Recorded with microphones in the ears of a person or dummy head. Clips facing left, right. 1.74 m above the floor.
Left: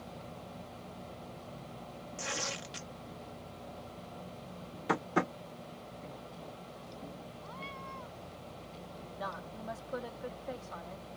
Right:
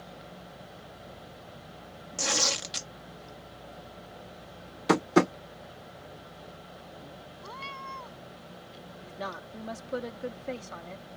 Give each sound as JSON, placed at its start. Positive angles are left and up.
{"t": 2.2, "sound": "tearing paper", "side_deg": -65}
{"t": 4.9, "sound": "tapping", "side_deg": -55}
{"t": 7.4, "sound": "a cat meowing", "side_deg": -70}
{"t": 9.1, "sound": "a woman speaking", "side_deg": -40}